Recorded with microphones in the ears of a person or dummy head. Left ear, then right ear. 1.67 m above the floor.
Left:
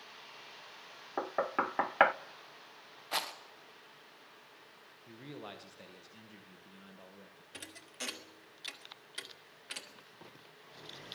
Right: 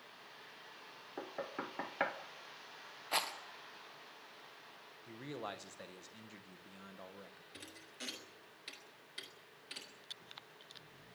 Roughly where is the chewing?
I don't hear chewing.